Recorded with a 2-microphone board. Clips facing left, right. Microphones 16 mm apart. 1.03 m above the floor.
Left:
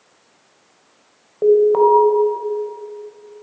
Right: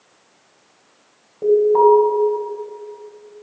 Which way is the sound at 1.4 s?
55° left (ahead or behind).